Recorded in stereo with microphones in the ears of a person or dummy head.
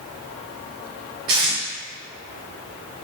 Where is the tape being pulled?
25° right (ahead or behind), 0.6 m.